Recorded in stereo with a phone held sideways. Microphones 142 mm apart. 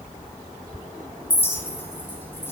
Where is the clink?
15° left (ahead or behind), 0.6 m.